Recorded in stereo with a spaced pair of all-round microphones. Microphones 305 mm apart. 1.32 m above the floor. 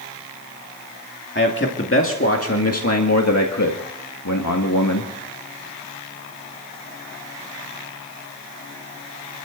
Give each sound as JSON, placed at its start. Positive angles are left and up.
{"t": 1.4, "sound": "a man speaking", "side_deg": 40, "distance_m": 2.5}